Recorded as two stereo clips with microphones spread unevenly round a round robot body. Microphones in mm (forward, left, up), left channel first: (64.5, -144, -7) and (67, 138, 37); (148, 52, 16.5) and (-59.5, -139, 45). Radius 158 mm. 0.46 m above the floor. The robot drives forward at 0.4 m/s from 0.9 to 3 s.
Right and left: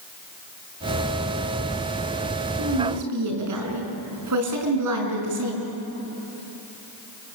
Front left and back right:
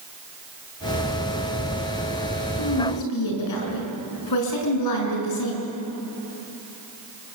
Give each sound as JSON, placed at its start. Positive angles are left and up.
{"t": 2.6, "sound": "a woman speaking", "azimuth_deg": 65, "distance_m": 6.0}